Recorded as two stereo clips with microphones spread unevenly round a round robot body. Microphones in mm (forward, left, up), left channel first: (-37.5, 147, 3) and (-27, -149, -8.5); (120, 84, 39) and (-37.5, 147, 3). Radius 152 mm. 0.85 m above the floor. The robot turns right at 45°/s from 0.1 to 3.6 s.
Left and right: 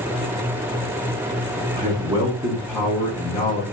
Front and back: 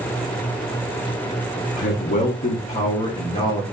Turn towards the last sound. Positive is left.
turn(degrees=45)